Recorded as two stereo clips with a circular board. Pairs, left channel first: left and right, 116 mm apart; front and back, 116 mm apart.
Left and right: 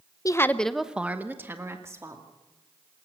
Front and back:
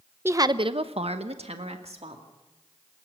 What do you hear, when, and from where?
0.2 s a woman speaking: 125° left, 0.7 m; by 2.2 s 155° right, 2.5 m